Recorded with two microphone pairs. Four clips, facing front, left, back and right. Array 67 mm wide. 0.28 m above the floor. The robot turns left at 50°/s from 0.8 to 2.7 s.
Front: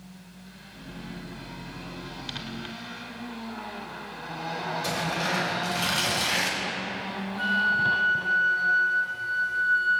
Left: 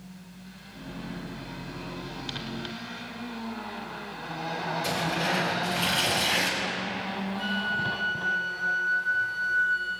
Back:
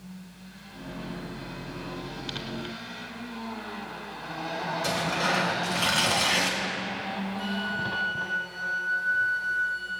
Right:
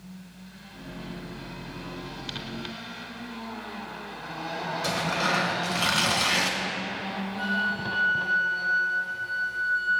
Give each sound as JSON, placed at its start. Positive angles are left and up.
{"t": 4.8, "sound": "tearing paper", "azimuth_deg": -110, "distance_m": 2.0}
{"t": 7.4, "sound": "a flute", "azimuth_deg": 10, "distance_m": 1.6}